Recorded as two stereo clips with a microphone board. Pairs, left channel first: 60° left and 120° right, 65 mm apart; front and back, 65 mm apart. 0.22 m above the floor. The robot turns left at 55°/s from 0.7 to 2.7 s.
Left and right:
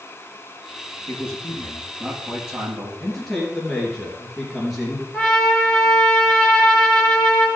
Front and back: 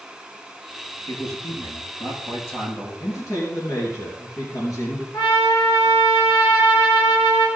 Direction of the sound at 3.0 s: 30° right.